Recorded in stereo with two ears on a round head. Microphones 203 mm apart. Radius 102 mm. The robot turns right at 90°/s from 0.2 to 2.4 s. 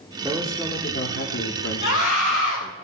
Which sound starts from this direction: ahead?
A man speaking, at 0.2 s.